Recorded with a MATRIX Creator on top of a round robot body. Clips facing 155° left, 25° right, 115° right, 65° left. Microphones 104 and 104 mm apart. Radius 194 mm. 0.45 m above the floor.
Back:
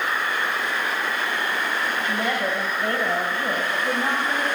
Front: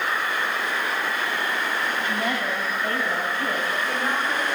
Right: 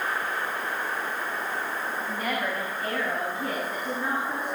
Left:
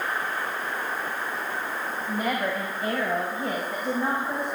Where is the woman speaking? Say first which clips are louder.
Back 1 dB, left 5 dB; 135° left, 3.5 m; by 4.5 s 120° left, 4.5 m.